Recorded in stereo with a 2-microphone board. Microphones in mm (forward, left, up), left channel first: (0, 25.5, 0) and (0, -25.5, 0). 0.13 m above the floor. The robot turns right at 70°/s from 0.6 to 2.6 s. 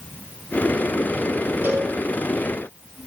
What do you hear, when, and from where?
1.6 s a cowbell: 45° right (ahead or behind), 3.5 m; by 1.9 s 25° right (ahead or behind), 3.5 m